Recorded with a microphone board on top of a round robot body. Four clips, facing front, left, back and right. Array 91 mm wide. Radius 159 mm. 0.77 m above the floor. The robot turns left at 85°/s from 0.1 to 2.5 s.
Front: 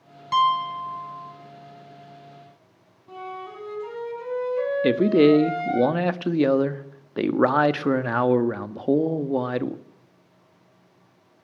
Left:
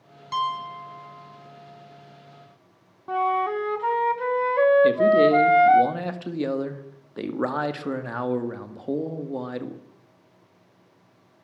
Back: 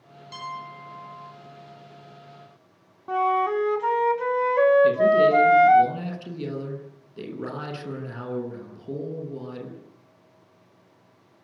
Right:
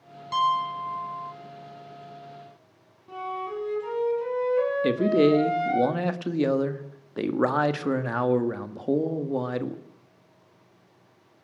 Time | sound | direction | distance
0.3 | a piano | 5° left | 4.5 m
3.1 | a flute | 130° left | 1.2 m
4.8 | a man speaking | 10° right | 1.8 m